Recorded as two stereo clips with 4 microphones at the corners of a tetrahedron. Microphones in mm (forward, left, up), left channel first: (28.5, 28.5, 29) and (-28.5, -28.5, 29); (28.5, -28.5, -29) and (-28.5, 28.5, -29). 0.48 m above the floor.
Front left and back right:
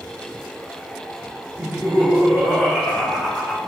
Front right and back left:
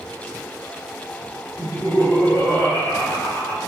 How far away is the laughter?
About 1.7 m.